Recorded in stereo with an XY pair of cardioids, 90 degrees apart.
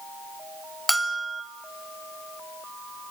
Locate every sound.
0.9 s a bell: 10° right, 2.5 m